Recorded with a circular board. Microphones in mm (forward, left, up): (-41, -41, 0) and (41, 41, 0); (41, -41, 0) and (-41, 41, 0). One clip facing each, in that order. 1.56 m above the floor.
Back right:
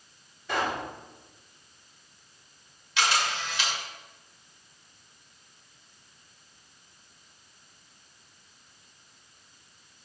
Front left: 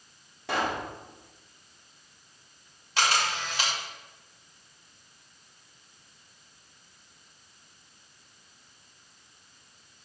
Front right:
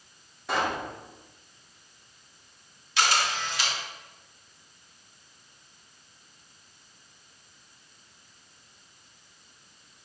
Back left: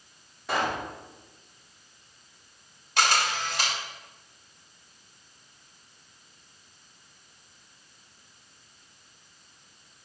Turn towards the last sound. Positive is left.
turn(degrees=95)